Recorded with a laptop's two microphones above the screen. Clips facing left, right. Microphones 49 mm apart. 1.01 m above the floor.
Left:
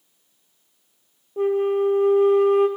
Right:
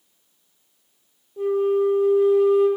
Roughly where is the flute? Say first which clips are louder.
Even; left.